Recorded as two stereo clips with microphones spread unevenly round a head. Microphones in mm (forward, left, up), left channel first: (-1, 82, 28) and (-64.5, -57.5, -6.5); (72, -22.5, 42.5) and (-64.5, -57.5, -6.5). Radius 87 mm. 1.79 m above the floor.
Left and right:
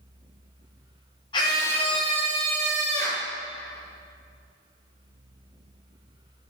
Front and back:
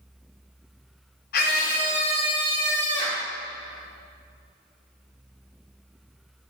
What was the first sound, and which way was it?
A scream, straight ahead.